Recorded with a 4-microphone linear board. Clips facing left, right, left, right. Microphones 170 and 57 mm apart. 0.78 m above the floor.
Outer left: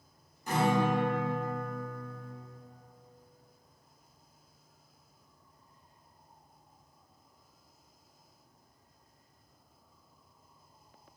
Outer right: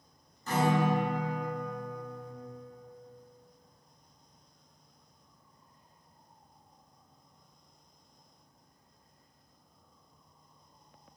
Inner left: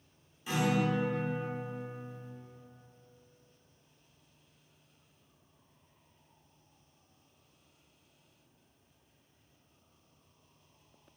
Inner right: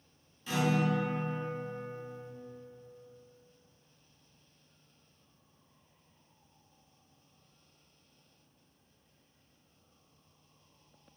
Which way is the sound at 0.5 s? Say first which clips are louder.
Even, even; 15° left (ahead or behind).